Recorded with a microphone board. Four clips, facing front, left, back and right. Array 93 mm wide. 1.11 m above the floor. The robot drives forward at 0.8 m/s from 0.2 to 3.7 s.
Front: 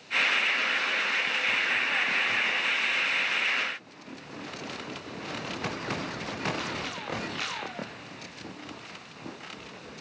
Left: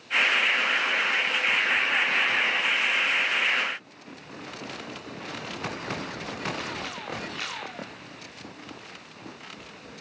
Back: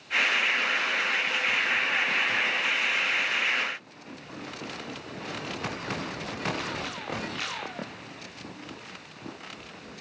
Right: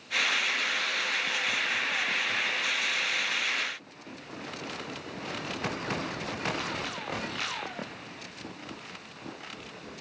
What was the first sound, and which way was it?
Only background noise.